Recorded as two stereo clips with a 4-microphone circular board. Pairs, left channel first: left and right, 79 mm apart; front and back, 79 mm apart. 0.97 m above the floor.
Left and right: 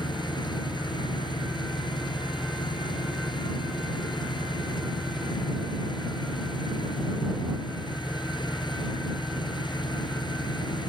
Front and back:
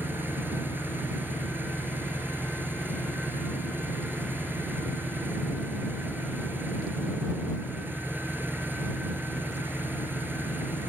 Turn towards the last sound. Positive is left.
turn(degrees=115)